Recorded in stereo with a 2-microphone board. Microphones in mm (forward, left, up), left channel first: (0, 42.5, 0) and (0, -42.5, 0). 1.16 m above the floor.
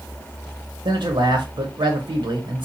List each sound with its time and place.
0.8 s a man speaking: 70° right (ahead or behind), 1.1 m